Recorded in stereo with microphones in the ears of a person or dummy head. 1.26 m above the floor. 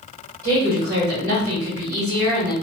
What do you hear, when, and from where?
0.4 s a woman speaking: 50° right (ahead or behind), 1.7 m